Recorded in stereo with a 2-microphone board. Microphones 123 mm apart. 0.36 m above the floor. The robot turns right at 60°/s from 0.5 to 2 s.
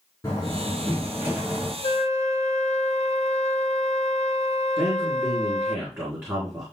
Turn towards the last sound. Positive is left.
turn(degrees=-20)  # may be behind; listen again after turning